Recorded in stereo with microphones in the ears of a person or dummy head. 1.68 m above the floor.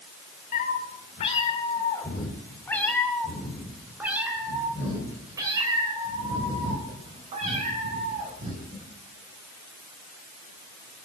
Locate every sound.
0.5 s a cat meowing: 45° left (ahead or behind), 2 m; by 8.8 s 40° right (ahead or behind), 4 m